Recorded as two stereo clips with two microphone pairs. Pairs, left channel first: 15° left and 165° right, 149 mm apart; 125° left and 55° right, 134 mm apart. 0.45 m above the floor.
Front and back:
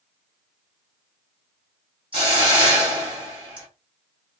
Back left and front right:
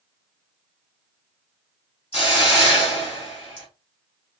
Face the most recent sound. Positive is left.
turn(degrees=150)